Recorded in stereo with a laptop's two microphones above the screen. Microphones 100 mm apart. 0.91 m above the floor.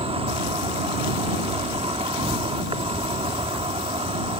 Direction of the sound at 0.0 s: 70° right (ahead or behind).